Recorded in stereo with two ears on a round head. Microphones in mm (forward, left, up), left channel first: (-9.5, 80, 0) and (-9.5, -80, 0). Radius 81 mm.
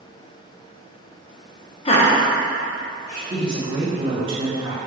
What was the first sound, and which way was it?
Laughter, 30° left (ahead or behind).